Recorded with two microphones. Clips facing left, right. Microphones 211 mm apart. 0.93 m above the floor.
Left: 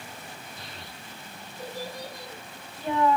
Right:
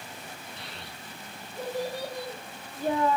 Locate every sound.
0.6 s a child speaking: 75° right (ahead or behind), 5 m; by 3.2 s 30° right (ahead or behind), 1.7 m